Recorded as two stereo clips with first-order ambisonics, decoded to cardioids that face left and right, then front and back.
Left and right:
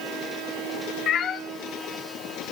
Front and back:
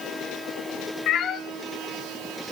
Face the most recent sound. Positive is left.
turn(degrees=45)